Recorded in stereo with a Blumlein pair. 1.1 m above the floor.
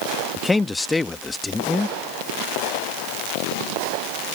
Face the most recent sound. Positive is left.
turn(degrees=10)